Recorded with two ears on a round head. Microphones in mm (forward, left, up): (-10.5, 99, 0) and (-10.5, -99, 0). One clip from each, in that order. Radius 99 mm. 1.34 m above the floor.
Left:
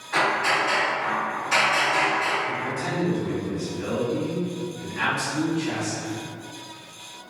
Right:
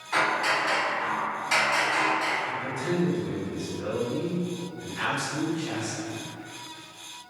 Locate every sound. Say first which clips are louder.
0.1 s hammering: left 3 dB; 45° right (ahead or behind), 1.3 m
2.5 s a man speaking: left 2 dB; 5° right (ahead or behind), 1.0 m